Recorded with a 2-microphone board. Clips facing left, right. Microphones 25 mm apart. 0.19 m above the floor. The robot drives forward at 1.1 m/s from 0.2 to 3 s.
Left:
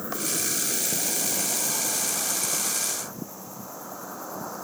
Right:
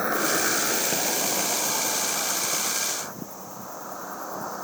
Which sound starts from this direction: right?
An insect, at 0.0 s.